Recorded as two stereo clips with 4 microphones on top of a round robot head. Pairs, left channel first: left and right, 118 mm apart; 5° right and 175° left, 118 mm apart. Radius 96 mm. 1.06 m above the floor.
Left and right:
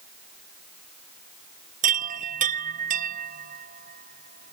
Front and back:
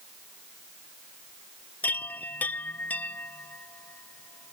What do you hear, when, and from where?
1.8 s a chime: 85° right